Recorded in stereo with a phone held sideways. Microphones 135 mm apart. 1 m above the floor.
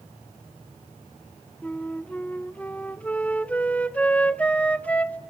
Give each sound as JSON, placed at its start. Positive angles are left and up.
{"t": 1.6, "sound": "a flute", "side_deg": 10, "distance_m": 0.6}